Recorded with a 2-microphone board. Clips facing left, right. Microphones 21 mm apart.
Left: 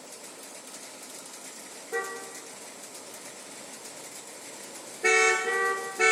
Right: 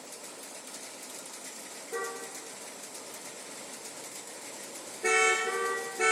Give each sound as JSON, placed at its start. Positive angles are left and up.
{"t": 1.9, "sound": "a car horn", "side_deg": 35, "distance_m": 2.0}